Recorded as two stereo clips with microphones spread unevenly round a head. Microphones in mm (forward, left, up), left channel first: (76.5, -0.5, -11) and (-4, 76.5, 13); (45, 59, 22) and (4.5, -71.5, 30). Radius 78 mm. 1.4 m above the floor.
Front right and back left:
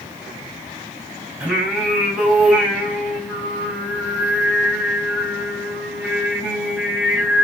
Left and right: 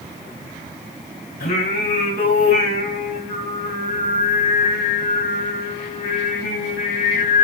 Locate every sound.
1.4 s singing: 60° left, 5 m